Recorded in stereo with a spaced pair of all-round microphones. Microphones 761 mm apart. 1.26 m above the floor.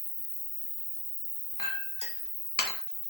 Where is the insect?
30° left (ahead or behind), 1.6 m.